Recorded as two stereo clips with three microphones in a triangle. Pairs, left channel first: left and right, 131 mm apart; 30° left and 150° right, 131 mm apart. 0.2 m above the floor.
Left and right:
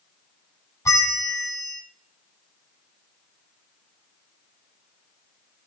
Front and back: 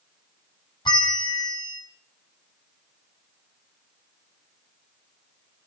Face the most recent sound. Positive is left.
turn(degrees=40)